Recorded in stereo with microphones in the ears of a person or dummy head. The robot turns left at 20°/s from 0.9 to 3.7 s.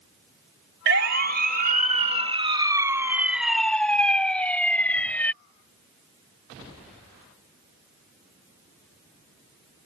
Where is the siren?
65° right (ahead or behind); by 5.3 s 10° left (ahead or behind).